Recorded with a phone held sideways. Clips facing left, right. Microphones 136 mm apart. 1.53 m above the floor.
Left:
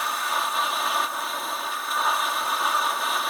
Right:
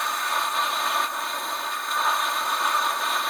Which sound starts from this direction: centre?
A machine running, at 0.0 s.